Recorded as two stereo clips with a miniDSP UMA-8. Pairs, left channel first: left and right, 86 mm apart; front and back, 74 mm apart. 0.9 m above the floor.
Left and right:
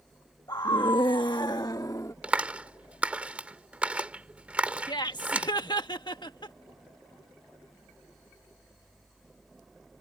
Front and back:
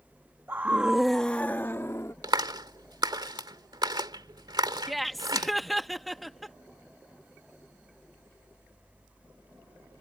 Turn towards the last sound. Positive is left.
turn(degrees=90)